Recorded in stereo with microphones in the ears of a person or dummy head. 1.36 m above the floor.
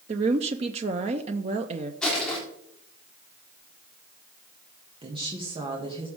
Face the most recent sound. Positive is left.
turn(degrees=-25)  # may be behind; listen again after turning